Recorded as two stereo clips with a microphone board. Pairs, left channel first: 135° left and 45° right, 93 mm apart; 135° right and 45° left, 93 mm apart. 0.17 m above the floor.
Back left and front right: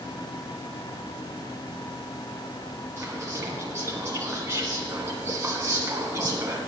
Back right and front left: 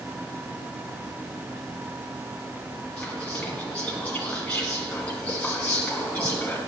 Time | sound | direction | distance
3.0 | whispering | 70° right | 1.5 m